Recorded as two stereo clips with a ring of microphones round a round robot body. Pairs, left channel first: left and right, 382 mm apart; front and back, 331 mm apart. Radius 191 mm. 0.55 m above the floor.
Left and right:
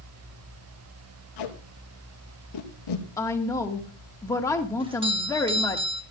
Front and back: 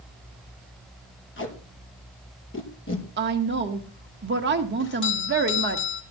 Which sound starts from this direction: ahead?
A doorbell, at 4.8 s.